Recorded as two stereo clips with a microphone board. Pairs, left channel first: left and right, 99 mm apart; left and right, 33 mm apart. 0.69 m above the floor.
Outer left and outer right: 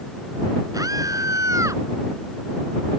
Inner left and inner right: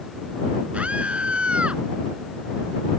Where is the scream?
40° right (ahead or behind); by 1.8 s 35° right (ahead or behind).